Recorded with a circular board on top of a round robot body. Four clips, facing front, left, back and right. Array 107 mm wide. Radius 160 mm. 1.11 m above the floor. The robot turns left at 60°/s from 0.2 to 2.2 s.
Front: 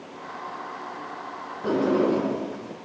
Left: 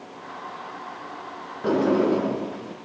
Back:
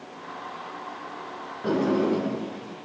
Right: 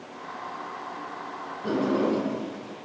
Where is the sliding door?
90° left, 0.7 m; by 2.7 s 60° left, 0.7 m.